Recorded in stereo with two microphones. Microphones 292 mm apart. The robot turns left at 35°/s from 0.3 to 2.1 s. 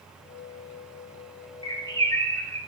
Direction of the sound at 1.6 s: 15° left (ahead or behind).